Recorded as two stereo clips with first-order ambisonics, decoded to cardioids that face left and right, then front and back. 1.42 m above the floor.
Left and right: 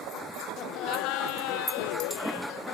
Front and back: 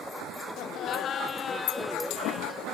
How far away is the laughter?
About 1.1 m.